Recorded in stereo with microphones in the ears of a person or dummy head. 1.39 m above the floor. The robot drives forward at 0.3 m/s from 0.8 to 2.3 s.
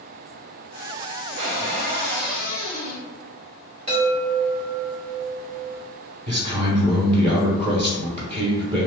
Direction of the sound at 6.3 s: 30° right (ahead or behind).